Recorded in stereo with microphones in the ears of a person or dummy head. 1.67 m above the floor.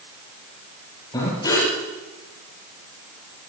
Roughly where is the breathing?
Left.